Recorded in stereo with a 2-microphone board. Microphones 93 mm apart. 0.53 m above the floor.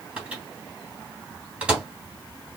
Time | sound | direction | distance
0.2 | a microwave | 10° right (ahead or behind) | 2.5 m